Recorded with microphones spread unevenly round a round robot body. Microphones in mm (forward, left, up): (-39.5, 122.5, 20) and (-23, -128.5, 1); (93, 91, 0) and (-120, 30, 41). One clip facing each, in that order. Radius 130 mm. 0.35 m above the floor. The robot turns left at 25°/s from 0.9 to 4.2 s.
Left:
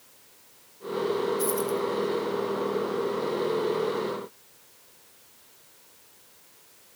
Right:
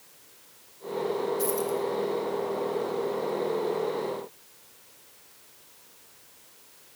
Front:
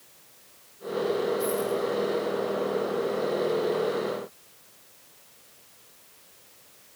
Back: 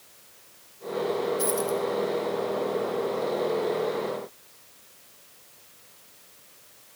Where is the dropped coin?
175° left, 4.5 m; by 1.8 s 165° left, 4.5 m.